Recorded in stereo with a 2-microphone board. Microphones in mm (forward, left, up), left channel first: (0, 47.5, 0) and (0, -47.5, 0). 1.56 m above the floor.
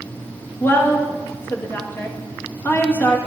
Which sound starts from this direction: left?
A woman speaking, at 0.6 s.